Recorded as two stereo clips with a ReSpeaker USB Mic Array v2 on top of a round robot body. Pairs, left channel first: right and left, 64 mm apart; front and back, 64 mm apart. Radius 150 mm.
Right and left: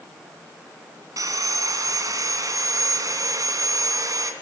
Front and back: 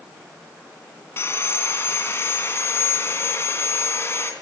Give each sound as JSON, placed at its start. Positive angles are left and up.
{"t": 1.2, "sound": "sawing", "azimuth_deg": 55, "distance_m": 3.0}